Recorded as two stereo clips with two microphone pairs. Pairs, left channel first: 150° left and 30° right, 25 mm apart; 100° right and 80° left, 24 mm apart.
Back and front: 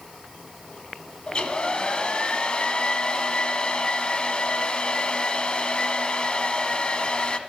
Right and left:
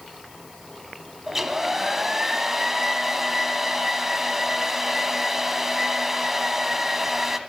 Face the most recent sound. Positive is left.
turn(degrees=150)